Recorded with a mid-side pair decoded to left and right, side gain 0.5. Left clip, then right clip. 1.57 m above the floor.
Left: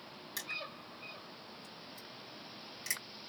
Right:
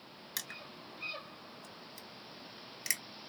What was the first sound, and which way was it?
Crushing, 45° right.